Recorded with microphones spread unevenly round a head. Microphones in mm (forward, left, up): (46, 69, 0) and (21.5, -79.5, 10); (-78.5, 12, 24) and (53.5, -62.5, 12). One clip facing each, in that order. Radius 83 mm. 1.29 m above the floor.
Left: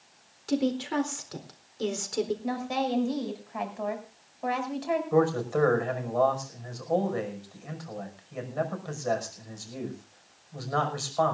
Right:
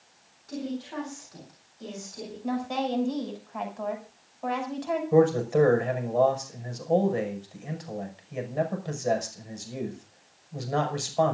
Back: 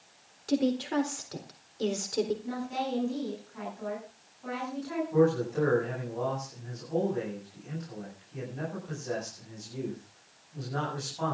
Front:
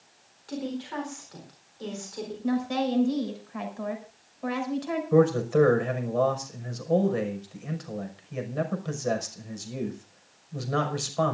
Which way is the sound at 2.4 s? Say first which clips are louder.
Even, front 7 dB; 5° right.